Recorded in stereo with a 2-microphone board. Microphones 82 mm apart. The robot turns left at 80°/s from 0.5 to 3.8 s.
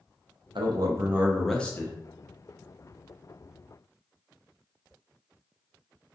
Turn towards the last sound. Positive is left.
turn(degrees=-5)